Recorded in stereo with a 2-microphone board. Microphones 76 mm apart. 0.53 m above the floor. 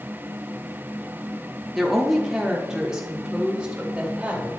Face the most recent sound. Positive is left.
turn(degrees=-15)  # may be behind; listen again after turning